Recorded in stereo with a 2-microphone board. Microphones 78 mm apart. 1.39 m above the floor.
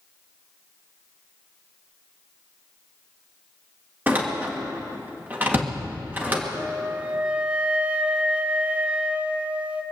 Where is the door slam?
25° right (ahead or behind), 1.7 m.